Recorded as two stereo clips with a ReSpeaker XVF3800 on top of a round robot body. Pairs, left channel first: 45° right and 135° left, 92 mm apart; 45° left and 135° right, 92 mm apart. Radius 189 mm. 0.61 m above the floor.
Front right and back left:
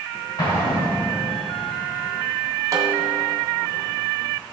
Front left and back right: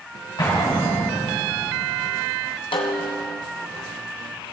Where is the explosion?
Straight ahead, 4 m.